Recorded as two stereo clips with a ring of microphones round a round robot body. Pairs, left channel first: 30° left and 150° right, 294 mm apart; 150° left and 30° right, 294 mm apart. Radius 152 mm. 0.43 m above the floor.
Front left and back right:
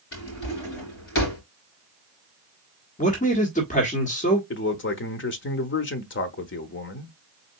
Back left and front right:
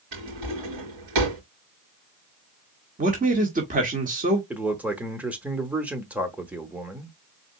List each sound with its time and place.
0.1 s a drawer: 20° right, 3.5 m
3.0 s a man speaking: 5° right, 1.5 m
4.5 s a man speaking: 55° left, 0.9 m